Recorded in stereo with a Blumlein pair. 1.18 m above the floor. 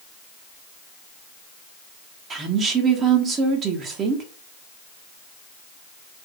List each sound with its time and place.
2.3 s a woman speaking: 25° right, 0.9 m